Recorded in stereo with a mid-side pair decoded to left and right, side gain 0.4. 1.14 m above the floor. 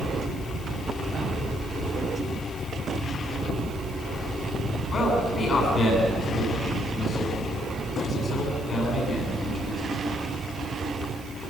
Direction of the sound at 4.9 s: 50° left.